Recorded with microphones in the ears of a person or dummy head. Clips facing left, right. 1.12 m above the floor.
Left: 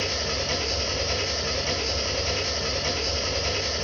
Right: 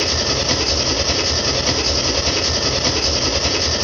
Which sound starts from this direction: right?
An engine running, at 0.0 s.